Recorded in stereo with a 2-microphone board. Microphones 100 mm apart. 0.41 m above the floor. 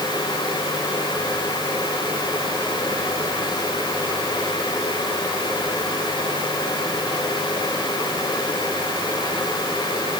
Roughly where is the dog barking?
No dog barking in this recording.